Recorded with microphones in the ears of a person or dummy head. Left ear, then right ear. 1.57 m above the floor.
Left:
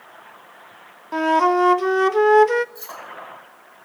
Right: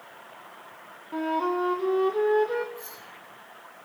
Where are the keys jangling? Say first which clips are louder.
Left 5 dB; 50° left (ahead or behind), 6.5 m.